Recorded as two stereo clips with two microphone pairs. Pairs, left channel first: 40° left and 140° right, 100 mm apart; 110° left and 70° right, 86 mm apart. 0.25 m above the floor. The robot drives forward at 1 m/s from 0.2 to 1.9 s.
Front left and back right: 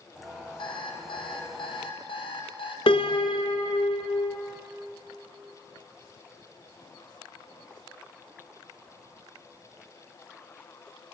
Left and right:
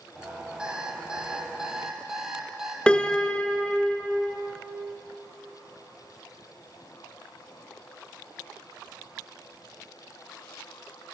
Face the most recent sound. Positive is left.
turn(degrees=30)